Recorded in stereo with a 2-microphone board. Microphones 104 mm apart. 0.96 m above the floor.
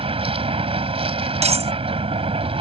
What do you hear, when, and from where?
0.0 s a vehicle: 70° right (ahead or behind)
1.4 s cutlery clinking: 85° right